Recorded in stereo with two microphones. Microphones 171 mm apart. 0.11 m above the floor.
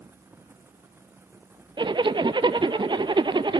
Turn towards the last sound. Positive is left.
turn(degrees=-30)  # may be behind; listen again after turning